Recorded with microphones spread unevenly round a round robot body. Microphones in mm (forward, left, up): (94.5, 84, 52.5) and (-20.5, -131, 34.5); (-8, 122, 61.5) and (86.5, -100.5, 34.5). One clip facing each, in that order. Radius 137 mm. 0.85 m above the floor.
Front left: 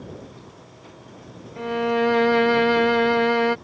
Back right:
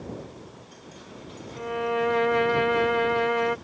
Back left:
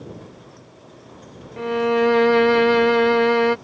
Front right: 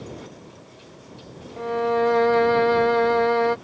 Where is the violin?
70° left.